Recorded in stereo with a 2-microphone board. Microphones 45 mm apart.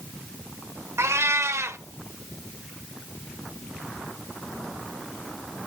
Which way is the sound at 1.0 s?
80° right.